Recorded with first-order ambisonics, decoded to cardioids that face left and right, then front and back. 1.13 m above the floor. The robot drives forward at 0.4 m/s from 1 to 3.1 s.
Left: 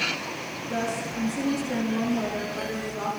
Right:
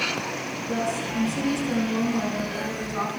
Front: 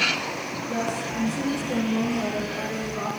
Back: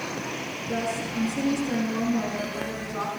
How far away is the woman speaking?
About 9 m.